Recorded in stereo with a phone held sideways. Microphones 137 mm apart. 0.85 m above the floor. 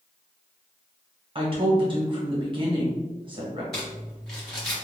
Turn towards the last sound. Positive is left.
turn(degrees=5)  # may be behind; listen again after turning